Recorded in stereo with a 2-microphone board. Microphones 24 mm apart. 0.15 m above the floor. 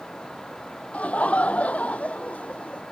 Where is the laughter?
65° left (ahead or behind); by 2.8 s 70° left (ahead or behind).